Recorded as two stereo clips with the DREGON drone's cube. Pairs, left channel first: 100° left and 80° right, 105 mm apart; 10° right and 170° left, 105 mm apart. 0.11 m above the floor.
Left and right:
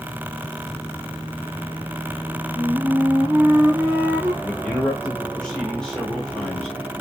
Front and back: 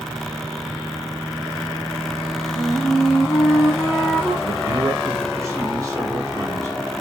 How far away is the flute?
About 1.7 m.